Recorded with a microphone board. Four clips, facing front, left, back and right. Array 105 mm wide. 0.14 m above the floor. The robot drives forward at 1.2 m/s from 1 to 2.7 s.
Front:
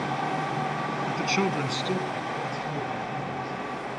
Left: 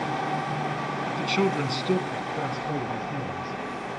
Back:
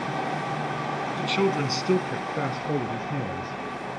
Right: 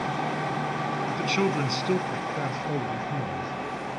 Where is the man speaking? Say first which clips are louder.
Left 2 dB, back 3 dB; 10° right, 1.1 m; by 3.6 s 175° right, 1.8 m.